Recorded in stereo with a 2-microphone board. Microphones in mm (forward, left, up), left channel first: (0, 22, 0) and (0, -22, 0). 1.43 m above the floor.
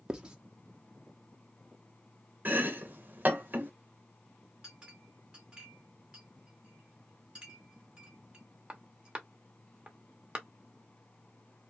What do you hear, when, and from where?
0.1 s writing: 20° right (ahead or behind), 0.7 m
2.5 s chopping: 45° right (ahead or behind), 1.0 m
4.6 s a clink: 25° right (ahead or behind), 1.2 m